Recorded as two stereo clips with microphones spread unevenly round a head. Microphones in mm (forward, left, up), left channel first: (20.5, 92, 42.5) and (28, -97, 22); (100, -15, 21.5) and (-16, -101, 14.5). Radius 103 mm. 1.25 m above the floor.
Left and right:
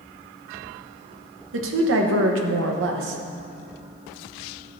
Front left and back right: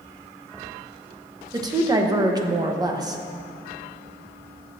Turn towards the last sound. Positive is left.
turn(degrees=-80)